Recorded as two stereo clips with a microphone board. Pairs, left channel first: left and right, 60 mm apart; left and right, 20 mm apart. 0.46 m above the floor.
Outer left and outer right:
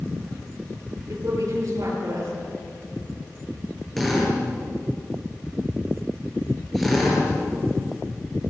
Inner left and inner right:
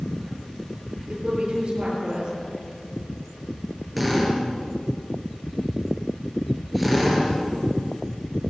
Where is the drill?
5° left (ahead or behind), 8 m.